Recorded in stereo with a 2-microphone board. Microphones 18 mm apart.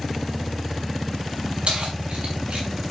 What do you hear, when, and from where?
1.7 s keys jangling: 85° right, 5 m; by 2.7 s 90° right, 5.5 m